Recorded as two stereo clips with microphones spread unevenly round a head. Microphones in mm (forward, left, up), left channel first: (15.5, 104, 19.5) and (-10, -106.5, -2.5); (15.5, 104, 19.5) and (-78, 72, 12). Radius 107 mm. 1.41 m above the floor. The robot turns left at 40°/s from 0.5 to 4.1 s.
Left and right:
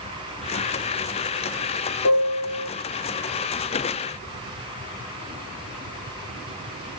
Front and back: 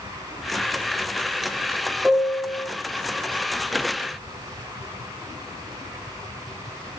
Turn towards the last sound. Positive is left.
turn(degrees=35)